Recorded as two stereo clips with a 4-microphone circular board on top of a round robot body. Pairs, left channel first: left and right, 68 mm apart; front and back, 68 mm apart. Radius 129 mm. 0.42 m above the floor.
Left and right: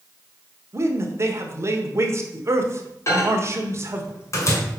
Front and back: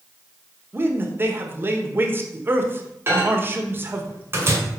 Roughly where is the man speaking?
Behind right.